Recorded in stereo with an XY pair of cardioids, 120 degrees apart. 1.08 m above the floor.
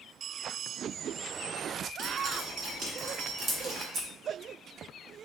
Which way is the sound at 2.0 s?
50° right.